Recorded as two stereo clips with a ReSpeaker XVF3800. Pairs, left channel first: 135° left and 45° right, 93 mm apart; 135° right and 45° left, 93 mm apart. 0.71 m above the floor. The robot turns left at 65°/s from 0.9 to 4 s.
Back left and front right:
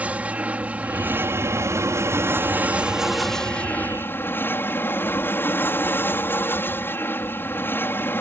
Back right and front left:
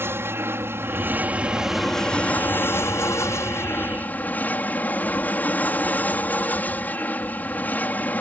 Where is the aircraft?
15° left; by 8.2 s 170° left.